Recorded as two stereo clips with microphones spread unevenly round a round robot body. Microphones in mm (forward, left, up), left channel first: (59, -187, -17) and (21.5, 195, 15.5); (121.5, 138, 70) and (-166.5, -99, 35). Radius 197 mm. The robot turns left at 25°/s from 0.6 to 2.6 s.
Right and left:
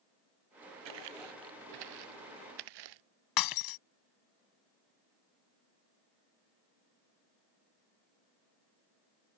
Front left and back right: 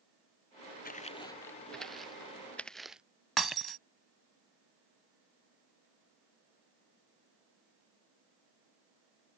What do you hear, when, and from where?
0.8 s footsteps: 105° left; by 3.0 s 130° left
3.4 s breaking glass: 50° right